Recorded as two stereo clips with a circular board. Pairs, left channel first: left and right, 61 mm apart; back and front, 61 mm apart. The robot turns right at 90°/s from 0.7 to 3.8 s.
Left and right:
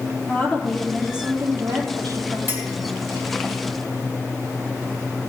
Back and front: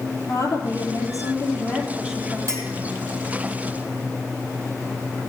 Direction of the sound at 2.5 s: 35° right.